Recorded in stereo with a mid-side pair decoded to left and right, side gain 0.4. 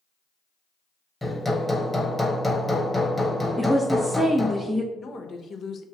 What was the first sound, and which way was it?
Hammering, 10° left.